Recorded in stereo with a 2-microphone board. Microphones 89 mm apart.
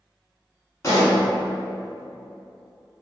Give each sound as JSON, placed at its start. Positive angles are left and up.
{"t": 0.8, "sound": "a pop", "side_deg": 35, "distance_m": 1.4}